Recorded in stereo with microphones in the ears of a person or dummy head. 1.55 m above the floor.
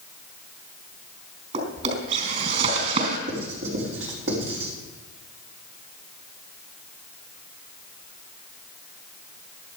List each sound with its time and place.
1.5 s a drawer: 45° right (ahead or behind), 4.5 m
3.3 s writing: 80° right, 4.5 m